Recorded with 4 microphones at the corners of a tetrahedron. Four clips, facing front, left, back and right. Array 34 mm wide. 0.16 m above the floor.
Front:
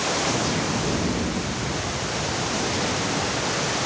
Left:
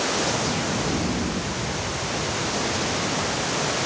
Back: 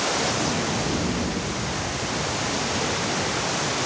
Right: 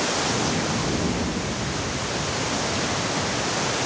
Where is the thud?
No thud in this recording.